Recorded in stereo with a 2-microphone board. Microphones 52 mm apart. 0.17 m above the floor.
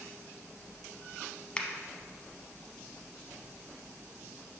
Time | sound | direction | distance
1.6 | a finger snap | 20° left (ahead or behind) | 0.8 m